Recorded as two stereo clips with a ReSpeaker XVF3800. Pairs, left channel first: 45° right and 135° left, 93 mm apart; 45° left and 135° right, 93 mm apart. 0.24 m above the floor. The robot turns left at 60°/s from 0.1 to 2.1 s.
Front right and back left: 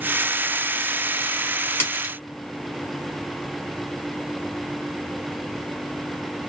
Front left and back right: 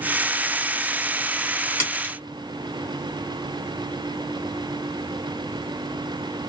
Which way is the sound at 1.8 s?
5° left.